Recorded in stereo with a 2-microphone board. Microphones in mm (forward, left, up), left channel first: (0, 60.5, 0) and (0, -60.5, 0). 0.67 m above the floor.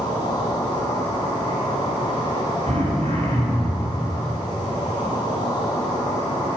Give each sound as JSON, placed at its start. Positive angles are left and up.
{"t": 0.0, "sound": "an insect", "side_deg": 35, "distance_m": 6.0}
{"t": 2.7, "sound": "throat clearing", "side_deg": -60, "distance_m": 5.0}